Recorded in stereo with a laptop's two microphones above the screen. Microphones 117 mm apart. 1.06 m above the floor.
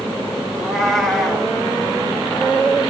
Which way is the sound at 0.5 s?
Centre (ahead or behind).